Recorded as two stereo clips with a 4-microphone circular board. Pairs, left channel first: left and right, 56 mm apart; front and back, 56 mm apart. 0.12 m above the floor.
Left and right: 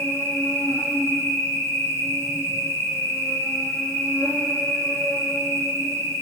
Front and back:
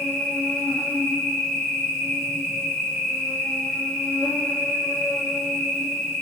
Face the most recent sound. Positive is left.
turn(degrees=80)